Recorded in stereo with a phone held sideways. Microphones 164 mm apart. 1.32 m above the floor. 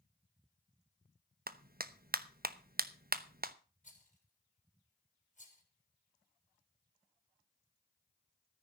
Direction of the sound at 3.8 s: 45° left (ahead or behind).